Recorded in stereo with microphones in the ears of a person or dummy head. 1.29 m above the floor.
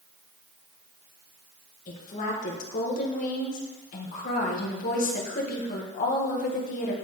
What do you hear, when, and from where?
1.9 s a woman speaking: 50° left (ahead or behind), 1.4 m